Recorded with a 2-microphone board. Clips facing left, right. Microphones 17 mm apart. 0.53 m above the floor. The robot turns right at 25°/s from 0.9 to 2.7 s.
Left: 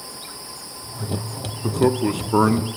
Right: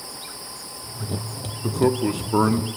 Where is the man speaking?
Centre (ahead or behind), 0.7 m; by 2.7 s 10° left (ahead or behind), 0.7 m.